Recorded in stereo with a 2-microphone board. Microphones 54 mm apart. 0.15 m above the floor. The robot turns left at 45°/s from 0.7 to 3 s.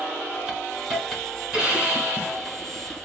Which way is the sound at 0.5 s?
5° right (ahead or behind).